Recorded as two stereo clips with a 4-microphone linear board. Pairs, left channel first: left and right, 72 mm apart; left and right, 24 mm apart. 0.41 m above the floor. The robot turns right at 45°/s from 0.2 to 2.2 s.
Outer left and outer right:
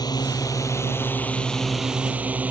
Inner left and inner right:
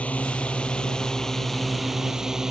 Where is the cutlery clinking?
No cutlery clinking in this recording.